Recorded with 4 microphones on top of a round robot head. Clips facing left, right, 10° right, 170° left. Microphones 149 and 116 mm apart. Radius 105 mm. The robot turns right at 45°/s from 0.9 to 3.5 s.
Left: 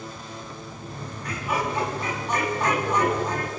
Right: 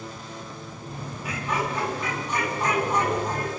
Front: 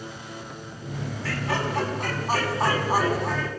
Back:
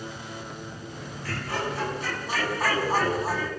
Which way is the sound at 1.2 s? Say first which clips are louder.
Left 1 dB, front 3 dB; 5° right.